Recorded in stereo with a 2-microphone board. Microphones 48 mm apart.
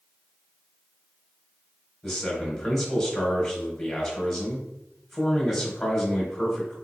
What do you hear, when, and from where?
2.0 s a man speaking: 5° left (ahead or behind), 1.2 m